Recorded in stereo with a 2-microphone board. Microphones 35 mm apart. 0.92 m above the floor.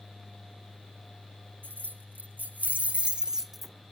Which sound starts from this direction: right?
Keys jangling, at 1.6 s.